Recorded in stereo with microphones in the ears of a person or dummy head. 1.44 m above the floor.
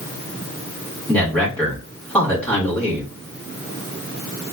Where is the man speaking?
10° left (ahead or behind), 2.5 m.